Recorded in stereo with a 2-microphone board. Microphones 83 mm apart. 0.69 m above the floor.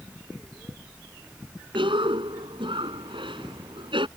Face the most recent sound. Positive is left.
turn(degrees=-85)